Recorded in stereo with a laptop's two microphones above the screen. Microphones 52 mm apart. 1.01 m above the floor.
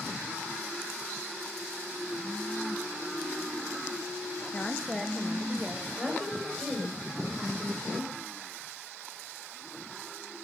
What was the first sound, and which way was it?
A woman speaking, 30° left (ahead or behind).